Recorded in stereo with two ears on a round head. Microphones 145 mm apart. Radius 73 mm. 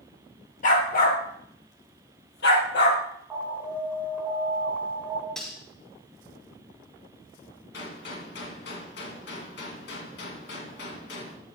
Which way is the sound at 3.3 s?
10° right (ahead or behind).